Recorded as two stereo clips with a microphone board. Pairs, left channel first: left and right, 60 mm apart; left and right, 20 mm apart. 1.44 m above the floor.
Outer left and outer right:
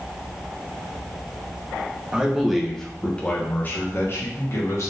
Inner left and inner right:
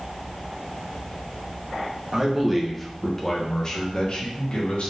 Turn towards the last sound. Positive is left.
turn(degrees=55)  # may be behind; listen again after turning